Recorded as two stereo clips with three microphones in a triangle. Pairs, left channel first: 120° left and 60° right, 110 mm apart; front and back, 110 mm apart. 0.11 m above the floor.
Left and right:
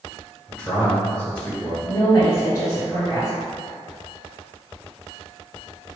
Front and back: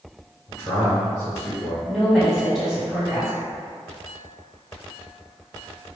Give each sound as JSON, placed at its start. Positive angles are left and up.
{"t": 0.5, "sound": "a man speaking", "azimuth_deg": 50, "distance_m": 1.3}
{"t": 1.9, "sound": "a woman speaking", "azimuth_deg": 95, "distance_m": 1.9}